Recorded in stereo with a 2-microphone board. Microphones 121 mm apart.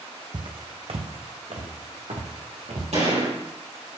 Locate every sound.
0.3 s footsteps: 40° right (ahead or behind), 0.8 m; by 2.8 s 75° right (ahead or behind), 2.5 m
2.9 s a gunshot: 75° right (ahead or behind), 4 m